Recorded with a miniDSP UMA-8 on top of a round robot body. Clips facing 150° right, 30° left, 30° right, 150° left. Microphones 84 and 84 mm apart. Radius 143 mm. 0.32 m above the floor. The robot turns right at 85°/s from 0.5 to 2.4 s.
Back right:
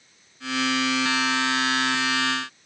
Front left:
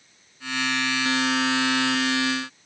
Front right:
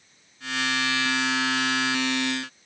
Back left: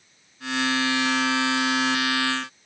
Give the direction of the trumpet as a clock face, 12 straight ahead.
No trumpet in this recording.